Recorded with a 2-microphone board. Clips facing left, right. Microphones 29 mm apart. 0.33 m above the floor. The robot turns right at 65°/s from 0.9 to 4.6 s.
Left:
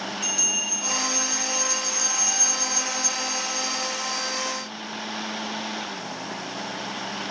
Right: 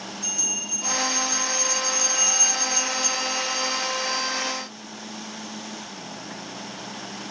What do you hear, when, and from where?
0.2 s a bell: 120° left, 1.2 m; by 4.3 s 20° right, 1.2 m